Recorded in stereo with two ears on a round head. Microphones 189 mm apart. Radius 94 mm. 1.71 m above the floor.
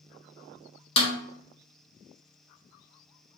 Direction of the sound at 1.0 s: 30° left (ahead or behind).